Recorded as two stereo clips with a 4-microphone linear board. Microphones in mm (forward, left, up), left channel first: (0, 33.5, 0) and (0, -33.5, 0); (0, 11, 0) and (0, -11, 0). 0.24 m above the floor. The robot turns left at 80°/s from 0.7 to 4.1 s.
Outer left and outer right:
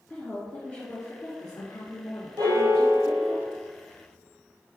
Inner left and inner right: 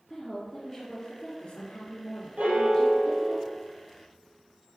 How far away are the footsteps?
I don't hear footsteps.